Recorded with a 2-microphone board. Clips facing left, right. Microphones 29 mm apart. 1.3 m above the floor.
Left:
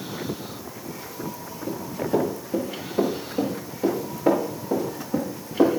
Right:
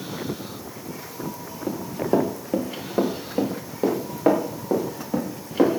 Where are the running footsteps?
60° right (ahead or behind), 4.5 m; by 5.8 s 30° right (ahead or behind), 6.5 m.